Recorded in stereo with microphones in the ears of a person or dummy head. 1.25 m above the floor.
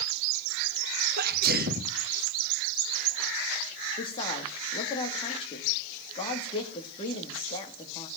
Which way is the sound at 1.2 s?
55° right (ahead or behind).